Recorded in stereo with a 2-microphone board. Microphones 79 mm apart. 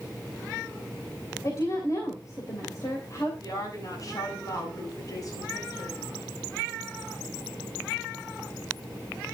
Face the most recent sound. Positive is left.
turn(degrees=50)  # may be behind; listen again after turning